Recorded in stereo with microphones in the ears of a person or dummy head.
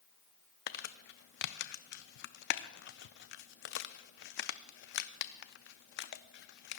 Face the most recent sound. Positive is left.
turn(degrees=60)  # may be behind; listen again after turning